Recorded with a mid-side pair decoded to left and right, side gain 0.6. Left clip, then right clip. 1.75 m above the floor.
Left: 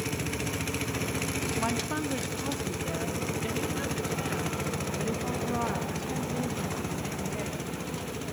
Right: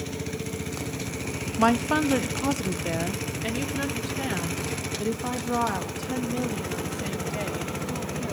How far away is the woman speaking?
About 0.7 m.